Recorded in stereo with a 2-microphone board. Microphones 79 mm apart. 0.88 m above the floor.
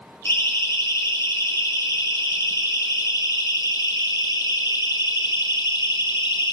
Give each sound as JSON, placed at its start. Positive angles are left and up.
{"t": 0.2, "sound": "a siren", "side_deg": 35, "distance_m": 8.0}